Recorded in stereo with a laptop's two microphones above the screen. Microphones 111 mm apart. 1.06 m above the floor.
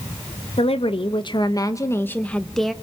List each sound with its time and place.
0.6 s a woman speaking: 60° left (ahead or behind), 1.1 m; by 2.7 s centre (ahead or behind), 1.0 m